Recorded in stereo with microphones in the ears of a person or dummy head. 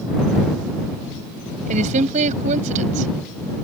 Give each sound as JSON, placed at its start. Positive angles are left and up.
{"t": 1.7, "sound": "a woman speaking", "side_deg": -45}